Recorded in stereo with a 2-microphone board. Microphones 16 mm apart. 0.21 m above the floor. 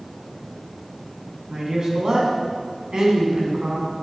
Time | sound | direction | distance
1.5 | a man speaking | 40° right (ahead or behind) | 1.9 m